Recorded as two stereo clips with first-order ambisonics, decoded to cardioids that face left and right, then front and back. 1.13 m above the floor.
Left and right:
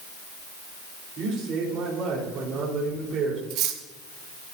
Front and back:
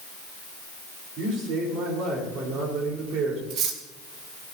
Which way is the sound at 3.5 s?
130° right.